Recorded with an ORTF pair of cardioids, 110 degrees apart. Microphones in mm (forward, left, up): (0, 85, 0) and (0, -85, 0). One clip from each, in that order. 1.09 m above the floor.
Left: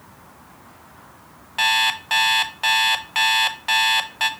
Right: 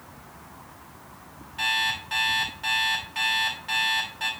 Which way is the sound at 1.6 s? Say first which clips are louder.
Left 6 dB; 60° left.